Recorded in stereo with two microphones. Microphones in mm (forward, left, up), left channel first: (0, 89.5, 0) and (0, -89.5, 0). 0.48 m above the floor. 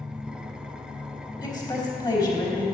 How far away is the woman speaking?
About 3.5 m.